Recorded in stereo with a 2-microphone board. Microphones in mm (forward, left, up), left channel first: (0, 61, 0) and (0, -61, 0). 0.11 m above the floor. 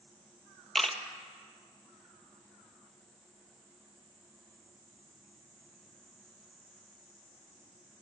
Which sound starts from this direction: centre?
A camera shutter, at 0.8 s.